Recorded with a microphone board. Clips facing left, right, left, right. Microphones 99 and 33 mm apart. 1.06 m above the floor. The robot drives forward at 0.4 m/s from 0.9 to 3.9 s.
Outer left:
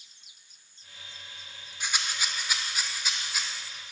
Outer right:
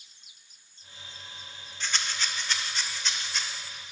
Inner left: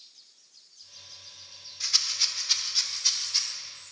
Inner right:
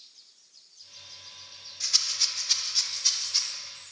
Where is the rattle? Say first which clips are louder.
Even, inner left 1 dB; 10° left (ahead or behind), 0.9 m; by 3.4 s 5° left (ahead or behind), 1.5 m.